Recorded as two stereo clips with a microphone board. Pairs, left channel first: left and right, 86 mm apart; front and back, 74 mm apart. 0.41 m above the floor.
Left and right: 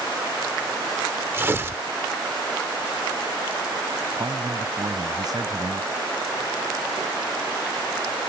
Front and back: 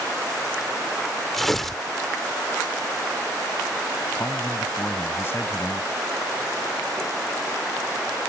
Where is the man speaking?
55° right.